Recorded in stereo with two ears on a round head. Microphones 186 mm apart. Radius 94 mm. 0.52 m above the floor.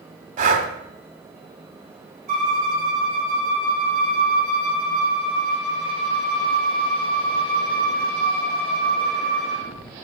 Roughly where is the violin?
Right.